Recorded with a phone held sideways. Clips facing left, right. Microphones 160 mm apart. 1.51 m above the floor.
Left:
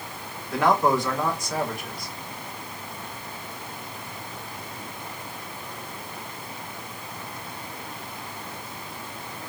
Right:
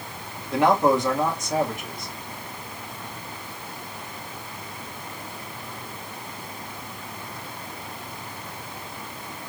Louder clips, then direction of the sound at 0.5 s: Right 2 dB; 20° right (ahead or behind).